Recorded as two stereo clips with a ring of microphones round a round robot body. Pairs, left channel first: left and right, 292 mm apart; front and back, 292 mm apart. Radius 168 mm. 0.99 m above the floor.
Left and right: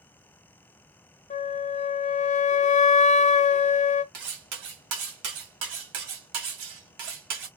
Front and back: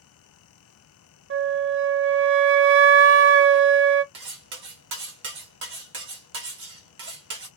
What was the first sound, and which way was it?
A flute, 150° left.